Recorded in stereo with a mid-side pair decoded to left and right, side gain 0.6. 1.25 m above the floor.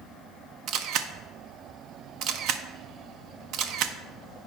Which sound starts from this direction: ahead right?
A camera shutter, at 0.7 s.